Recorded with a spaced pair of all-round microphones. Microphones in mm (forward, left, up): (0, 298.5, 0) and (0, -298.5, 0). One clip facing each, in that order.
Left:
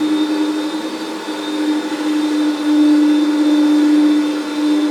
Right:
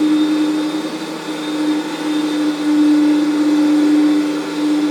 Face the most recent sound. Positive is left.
turn(degrees=-25)  # may be behind; listen again after turning